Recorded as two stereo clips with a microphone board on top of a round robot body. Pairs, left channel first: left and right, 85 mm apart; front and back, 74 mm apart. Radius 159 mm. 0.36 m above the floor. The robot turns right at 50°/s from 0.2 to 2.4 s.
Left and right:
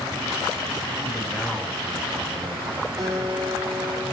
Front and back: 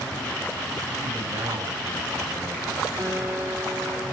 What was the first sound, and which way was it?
A man speaking, 140° left.